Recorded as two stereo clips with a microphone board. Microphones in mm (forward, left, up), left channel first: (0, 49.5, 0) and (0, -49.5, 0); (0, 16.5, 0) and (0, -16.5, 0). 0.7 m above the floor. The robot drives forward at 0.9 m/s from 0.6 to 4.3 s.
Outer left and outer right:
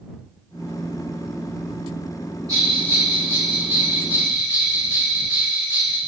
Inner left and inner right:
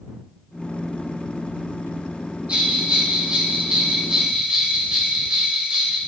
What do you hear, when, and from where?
2.5 s a bell: 40° right (ahead or behind), 2 m; by 6.0 s 20° right (ahead or behind), 3.5 m